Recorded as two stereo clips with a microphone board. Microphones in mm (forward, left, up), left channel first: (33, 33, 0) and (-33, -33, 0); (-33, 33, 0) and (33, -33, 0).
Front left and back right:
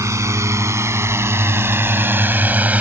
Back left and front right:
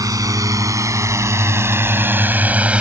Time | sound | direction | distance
0.0 | a drone | 85° right | ?